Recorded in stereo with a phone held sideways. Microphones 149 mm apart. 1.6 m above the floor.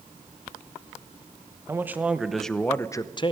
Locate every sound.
1.7 s a man speaking: 15° right (ahead or behind), 1.1 m; by 3.3 s 40° left (ahead or behind), 0.7 m